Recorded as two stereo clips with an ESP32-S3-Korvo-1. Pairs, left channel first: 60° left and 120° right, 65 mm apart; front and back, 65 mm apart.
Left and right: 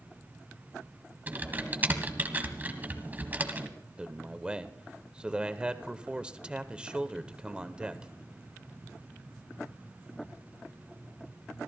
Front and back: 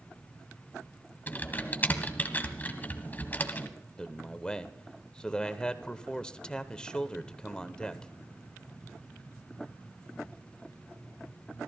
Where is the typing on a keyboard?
60° right, 1.6 m.